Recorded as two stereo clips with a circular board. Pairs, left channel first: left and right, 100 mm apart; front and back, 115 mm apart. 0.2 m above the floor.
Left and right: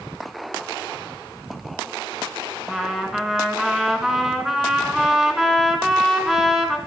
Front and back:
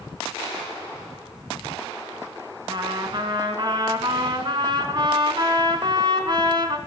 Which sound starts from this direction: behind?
A trumpet, at 2.7 s.